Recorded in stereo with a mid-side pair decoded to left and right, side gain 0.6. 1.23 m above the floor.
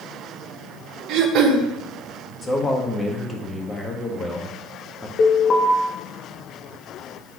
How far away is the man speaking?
About 1.8 m.